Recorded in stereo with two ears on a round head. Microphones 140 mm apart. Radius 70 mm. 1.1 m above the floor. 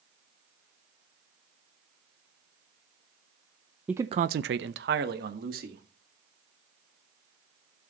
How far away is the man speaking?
About 0.5 m.